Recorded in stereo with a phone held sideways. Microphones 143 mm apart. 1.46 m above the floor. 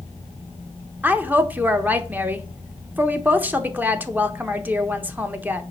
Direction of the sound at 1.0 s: 15° right (ahead or behind).